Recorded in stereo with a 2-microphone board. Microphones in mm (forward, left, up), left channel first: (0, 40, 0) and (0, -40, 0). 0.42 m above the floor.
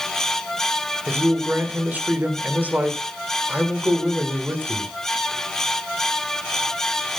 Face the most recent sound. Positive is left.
turn(degrees=-20)  # may be behind; listen again after turning